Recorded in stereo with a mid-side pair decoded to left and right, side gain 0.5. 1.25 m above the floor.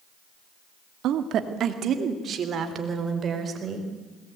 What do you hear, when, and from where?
1.0 s a woman speaking: 70° right, 2 m; by 3.9 s 40° right, 5 m